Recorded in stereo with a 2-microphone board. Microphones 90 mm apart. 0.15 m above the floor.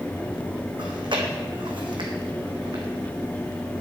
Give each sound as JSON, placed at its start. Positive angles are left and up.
{"t": 0.8, "sound": "chewing", "side_deg": -60, "distance_m": 1.6}